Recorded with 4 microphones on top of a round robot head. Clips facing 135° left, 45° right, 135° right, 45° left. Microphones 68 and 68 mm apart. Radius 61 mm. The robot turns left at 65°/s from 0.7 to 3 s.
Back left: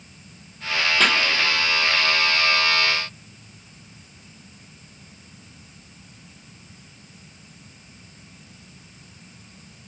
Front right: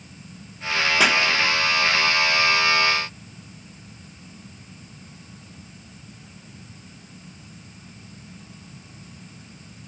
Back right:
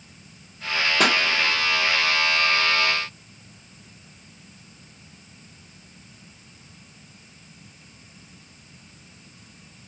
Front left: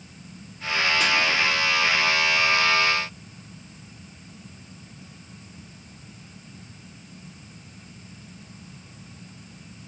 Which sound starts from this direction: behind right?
A pop, at 1.0 s.